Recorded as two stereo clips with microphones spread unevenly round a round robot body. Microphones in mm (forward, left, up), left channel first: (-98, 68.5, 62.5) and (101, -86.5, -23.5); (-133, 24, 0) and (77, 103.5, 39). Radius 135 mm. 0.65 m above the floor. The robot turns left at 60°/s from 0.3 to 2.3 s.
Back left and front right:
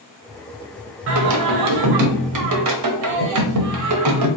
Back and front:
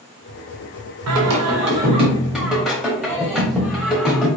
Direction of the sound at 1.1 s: 10° left.